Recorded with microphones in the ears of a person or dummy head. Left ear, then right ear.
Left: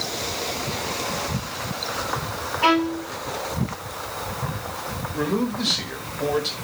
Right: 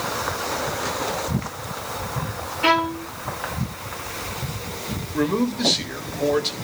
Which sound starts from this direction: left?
A violin, at 2.6 s.